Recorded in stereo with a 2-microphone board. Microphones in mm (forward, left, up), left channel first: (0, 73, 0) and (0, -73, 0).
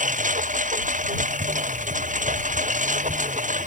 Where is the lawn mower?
65° right (ahead or behind); by 3.7 s 60° right (ahead or behind).